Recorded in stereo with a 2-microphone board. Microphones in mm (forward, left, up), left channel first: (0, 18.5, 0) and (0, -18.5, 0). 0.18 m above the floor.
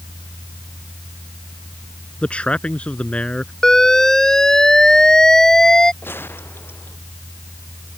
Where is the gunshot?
85° left.